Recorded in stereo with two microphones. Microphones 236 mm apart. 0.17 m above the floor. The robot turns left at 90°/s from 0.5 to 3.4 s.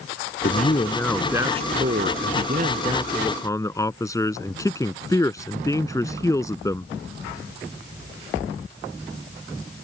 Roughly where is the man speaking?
Ahead left.